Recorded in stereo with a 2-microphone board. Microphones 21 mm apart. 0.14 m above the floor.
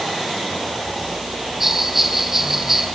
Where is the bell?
20° right (ahead or behind), 2 m.